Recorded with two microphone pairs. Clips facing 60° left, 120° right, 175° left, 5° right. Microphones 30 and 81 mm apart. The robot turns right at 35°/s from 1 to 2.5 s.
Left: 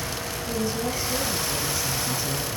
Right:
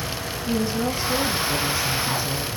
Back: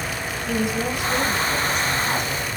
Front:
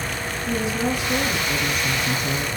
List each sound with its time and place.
0.5 s a woman speaking: 75° right, 3 m; by 2.5 s 25° right, 3 m